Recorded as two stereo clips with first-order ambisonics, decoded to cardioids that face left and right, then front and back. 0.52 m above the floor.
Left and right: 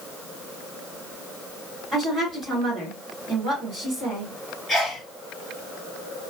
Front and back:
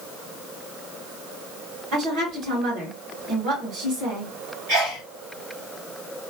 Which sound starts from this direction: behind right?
A woman speaking, at 1.9 s.